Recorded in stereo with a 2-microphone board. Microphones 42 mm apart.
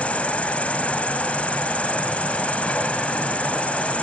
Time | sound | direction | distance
0.0 | an insect | 35° left (ahead or behind) | 1.2 m